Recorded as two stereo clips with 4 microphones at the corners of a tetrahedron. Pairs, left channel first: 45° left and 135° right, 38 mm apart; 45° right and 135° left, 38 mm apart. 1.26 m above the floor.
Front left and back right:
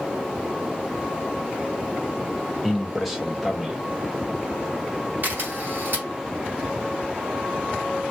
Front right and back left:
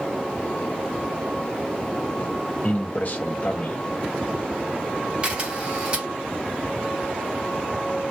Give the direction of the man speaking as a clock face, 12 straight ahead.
2 o'clock.